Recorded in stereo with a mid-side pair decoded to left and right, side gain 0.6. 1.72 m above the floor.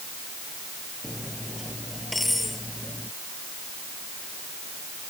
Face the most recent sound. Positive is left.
turn(degrees=10)